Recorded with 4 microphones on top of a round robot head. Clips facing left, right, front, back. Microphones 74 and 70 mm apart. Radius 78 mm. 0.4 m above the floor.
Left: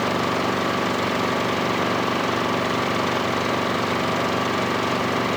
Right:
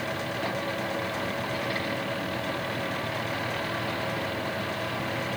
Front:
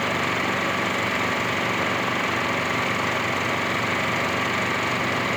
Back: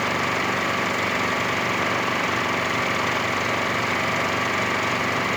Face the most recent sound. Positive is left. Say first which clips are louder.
# left 9 dB, back 1 dB
turn(degrees=95)